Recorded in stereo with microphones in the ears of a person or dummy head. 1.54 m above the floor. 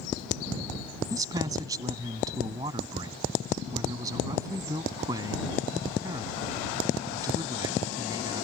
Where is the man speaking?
25° right (ahead or behind).